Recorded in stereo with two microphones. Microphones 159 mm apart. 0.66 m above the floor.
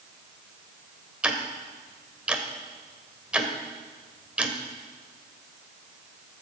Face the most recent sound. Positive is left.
turn(degrees=-5)  # may be behind; listen again after turning